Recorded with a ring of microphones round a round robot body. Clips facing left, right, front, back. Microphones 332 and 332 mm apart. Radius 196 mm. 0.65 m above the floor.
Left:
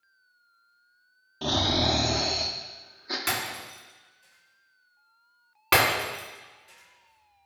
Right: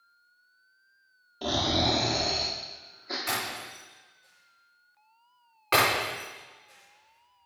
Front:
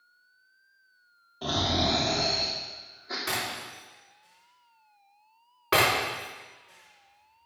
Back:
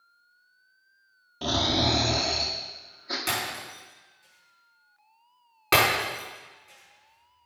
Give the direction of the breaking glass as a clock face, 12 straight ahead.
8 o'clock.